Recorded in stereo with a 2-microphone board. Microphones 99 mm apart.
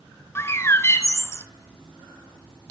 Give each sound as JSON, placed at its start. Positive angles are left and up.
{"t": 0.3, "sound": "a bird", "side_deg": 25, "distance_m": 1.0}